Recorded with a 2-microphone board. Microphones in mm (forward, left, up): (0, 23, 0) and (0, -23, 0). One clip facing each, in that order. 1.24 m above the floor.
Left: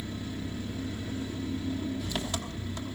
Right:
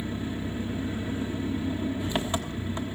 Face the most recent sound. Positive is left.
turn(degrees=-25)  # may be behind; listen again after turning